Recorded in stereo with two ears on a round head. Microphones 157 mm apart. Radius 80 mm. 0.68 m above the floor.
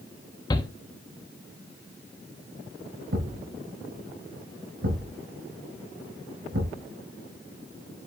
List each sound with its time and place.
0.5 s a shout: 25° left (ahead or behind), 0.9 m
3.1 s a thud: 75° right (ahead or behind), 4 m